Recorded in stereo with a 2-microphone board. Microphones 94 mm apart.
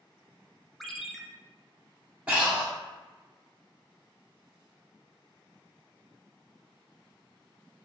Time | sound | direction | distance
0.8 | a ringtone | centre (ahead or behind) | 0.5 m
2.3 | breathing | 15° right (ahead or behind) | 1.8 m